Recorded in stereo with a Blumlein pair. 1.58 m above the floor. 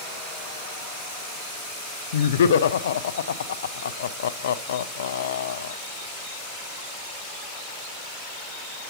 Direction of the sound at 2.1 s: 60° left.